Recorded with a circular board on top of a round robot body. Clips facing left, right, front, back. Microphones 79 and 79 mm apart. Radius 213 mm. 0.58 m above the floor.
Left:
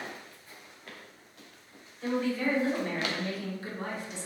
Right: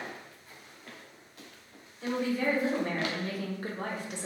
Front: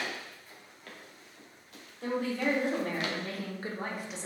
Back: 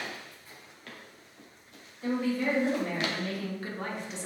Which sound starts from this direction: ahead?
A woman speaking, at 2.0 s.